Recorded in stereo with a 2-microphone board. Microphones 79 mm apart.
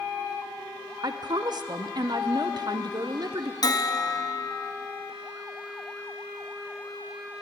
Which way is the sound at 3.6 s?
50° left (ahead or behind).